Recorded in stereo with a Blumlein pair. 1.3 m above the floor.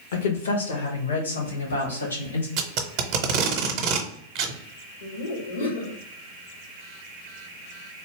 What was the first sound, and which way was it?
A woman speaking, 60° left.